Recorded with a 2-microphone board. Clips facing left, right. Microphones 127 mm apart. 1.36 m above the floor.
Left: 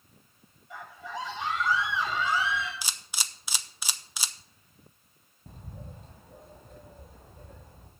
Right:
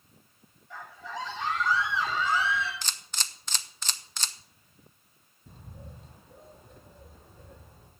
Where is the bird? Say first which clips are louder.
Left 2 dB; 50° left (ahead or behind), 2.5 m.